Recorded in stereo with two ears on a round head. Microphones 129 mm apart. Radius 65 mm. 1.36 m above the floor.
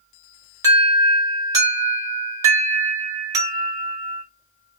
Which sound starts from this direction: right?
An alarm, at 0.6 s.